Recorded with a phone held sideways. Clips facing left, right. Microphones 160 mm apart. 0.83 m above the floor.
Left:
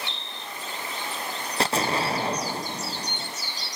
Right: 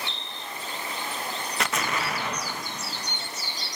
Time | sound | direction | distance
1.6 | an explosion | 35° left (ahead or behind) | 0.7 m